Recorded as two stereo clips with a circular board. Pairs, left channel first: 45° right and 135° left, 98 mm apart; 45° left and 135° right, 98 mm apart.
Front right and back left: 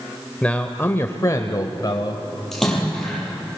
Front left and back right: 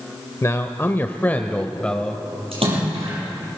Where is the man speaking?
25° left, 0.9 m; by 2.2 s 40° right, 1.3 m.